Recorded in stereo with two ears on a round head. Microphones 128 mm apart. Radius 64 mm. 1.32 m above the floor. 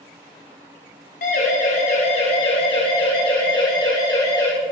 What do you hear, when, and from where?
1.2 s a siren: 60° left (ahead or behind), 5 m; by 4.5 s 25° left (ahead or behind), 7.5 m